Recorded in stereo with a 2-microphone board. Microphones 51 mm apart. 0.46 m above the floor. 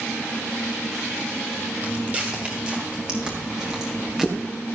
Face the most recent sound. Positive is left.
turn(degrees=-5)  # may be behind; listen again after turning